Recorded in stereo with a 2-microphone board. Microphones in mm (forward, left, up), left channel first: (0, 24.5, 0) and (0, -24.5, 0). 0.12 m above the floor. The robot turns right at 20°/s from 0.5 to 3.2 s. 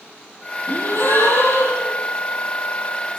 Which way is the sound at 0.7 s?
40° left (ahead or behind).